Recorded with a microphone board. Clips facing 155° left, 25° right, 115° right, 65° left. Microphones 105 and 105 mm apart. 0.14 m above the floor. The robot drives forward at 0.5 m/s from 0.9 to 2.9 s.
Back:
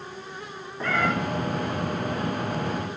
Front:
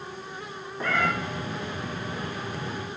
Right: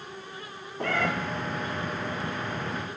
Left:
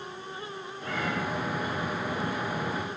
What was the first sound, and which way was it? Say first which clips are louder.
A cat meowing: back 1 dB, right 5 dB; 110° right.